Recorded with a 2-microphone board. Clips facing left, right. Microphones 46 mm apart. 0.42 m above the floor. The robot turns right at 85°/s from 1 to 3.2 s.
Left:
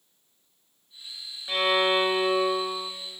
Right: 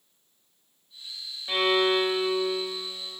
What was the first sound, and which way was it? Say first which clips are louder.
A violin: even; 10° right.